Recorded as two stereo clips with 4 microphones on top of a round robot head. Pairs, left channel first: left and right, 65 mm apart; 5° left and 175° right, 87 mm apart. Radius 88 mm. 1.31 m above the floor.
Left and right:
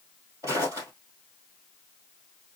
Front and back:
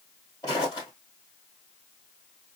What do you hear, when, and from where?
0.4 s footsteps: 65° right, 1.7 m